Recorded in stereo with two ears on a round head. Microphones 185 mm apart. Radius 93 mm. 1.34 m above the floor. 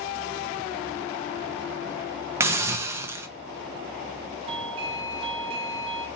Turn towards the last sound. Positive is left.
turn(degrees=-25)  # may be behind; listen again after turning